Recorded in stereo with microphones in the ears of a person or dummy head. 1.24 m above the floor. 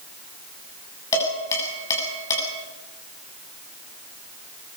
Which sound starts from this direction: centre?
Dishes clattering, at 1.1 s.